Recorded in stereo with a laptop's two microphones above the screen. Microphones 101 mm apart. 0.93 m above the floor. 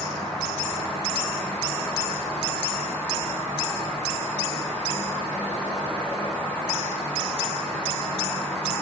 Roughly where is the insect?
Centre.